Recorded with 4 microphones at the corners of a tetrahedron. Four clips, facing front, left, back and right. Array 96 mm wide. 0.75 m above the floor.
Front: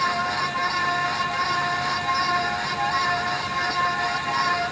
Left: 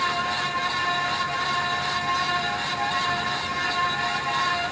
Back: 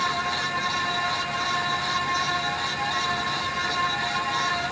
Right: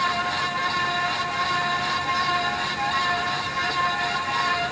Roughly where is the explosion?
No explosion in this recording.